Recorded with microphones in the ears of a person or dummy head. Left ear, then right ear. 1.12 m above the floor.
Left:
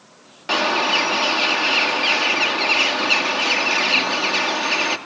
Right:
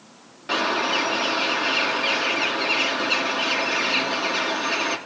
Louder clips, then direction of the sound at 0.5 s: Left 4 dB; 25° left (ahead or behind).